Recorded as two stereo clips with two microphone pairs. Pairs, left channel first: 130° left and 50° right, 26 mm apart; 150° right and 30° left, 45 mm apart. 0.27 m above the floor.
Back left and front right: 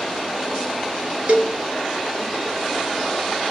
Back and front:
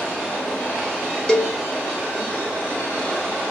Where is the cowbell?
75° right, 0.7 m.